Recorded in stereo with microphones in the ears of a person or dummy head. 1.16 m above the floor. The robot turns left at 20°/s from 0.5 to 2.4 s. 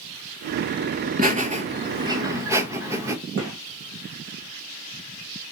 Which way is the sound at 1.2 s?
35° right (ahead or behind).